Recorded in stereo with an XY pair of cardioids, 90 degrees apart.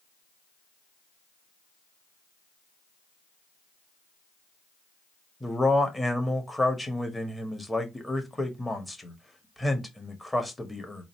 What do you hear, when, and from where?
5.4 s a man speaking: 10° left, 1.4 m